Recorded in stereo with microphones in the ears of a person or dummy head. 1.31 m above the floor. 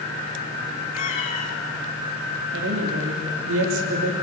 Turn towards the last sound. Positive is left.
turn(degrees=-65)  # may be behind; listen again after turning